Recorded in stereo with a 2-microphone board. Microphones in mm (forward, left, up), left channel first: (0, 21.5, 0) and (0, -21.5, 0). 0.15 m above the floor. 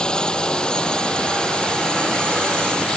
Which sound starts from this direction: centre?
A drone, at 0.0 s.